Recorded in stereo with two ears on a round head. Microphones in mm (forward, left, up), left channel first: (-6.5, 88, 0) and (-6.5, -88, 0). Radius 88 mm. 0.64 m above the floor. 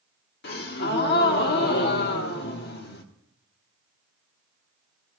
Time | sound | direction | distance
0.4 | a gasp | 55° left (ahead or behind) | 1.2 m